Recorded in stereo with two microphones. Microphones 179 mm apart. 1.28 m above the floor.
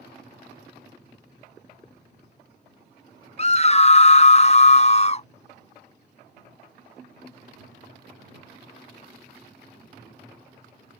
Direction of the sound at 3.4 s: 35° left (ahead or behind).